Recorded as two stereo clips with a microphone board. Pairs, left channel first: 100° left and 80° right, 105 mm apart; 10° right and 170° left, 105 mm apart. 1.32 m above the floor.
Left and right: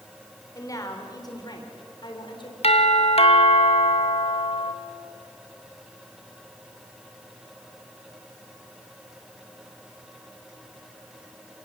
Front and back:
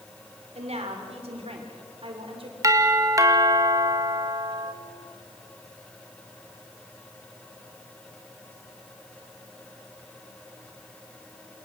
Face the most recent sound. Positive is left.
turn(degrees=110)